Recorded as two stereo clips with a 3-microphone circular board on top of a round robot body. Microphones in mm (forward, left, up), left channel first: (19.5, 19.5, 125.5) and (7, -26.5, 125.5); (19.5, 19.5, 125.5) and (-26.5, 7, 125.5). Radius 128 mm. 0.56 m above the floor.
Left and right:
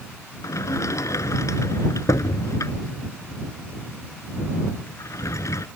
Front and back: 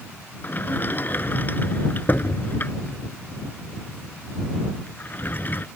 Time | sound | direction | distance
0.4 | a sliding door | 65° left | ?